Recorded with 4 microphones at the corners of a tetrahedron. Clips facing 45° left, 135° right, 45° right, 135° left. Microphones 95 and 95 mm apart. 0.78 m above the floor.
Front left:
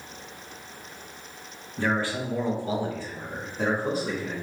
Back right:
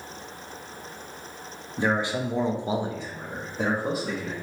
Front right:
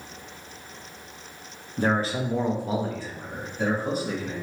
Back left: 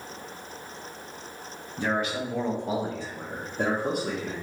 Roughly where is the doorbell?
I don't hear a doorbell.